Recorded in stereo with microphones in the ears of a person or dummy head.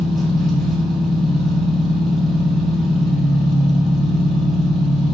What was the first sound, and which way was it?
An engine running, centre (ahead or behind).